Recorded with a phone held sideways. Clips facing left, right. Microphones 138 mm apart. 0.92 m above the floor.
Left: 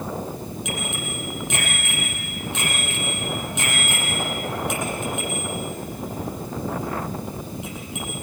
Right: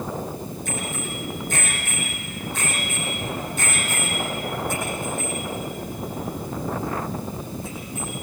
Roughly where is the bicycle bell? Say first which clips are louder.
Even; left.